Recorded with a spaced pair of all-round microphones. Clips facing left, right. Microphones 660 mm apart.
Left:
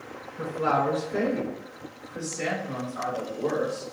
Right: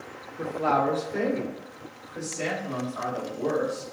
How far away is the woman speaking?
About 0.9 m.